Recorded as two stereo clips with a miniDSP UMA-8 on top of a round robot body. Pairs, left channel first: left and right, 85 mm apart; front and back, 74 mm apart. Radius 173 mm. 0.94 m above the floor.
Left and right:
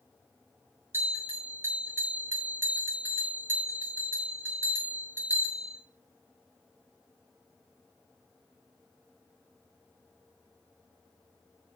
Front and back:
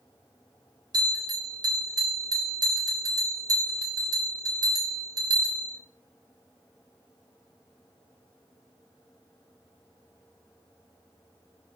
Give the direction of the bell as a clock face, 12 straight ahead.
5 o'clock.